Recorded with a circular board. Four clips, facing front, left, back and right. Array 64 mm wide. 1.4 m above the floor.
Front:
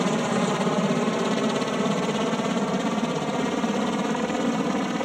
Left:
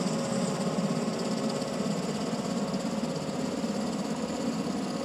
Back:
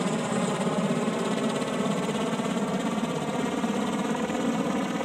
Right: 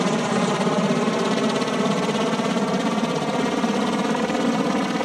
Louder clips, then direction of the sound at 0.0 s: Right 9 dB, front 4 dB; 75° right.